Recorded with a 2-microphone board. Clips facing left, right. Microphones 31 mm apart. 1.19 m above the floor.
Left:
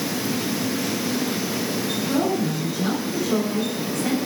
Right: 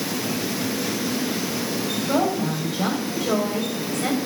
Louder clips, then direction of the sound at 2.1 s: Right 1 dB; 65° right (ahead or behind).